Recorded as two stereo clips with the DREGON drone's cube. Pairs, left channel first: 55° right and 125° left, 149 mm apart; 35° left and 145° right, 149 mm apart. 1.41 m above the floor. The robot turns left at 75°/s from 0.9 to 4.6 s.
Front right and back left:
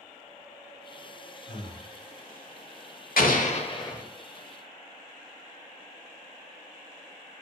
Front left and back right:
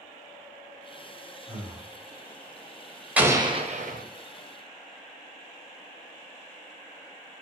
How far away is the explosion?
About 0.7 m.